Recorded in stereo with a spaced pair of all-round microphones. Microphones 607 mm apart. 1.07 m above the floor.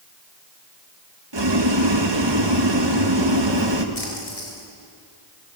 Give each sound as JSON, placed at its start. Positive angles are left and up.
{"t": 1.3, "sound": "boiling", "side_deg": -45, "distance_m": 1.5}
{"t": 4.0, "sound": "a splash", "side_deg": 70, "distance_m": 4.5}